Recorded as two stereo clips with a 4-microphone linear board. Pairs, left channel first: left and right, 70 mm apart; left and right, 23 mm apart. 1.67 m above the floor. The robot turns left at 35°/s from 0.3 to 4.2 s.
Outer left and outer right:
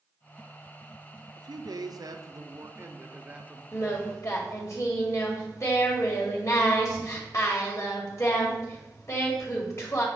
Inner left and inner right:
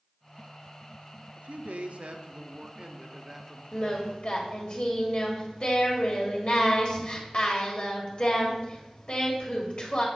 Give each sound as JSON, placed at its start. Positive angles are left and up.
{"t": 1.4, "sound": "a man speaking", "azimuth_deg": -90, "distance_m": 0.7}
{"t": 3.7, "sound": "singing", "side_deg": 40, "distance_m": 1.8}